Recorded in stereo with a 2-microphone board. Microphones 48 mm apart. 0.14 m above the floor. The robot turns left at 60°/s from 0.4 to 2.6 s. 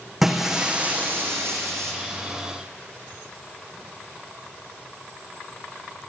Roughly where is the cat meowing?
No cat meowing in this recording.